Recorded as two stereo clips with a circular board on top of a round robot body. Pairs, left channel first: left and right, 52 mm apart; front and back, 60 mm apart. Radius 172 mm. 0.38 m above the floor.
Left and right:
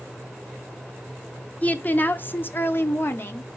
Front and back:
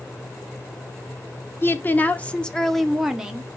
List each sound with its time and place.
1.6 s a woman speaking: 40° left, 1.7 m; by 3.5 s 110° left, 1.6 m